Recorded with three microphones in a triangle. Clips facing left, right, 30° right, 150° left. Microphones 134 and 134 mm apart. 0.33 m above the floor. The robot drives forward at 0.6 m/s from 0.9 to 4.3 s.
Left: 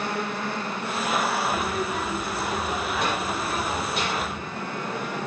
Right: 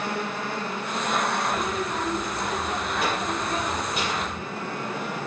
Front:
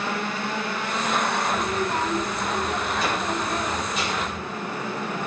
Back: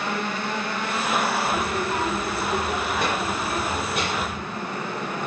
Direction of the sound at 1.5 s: Straight behind.